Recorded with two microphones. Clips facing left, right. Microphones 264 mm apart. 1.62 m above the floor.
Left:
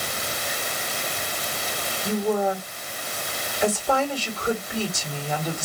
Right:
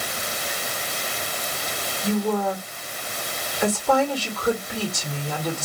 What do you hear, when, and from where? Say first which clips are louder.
2.0 s a woman speaking: even; 85° right, 3.5 m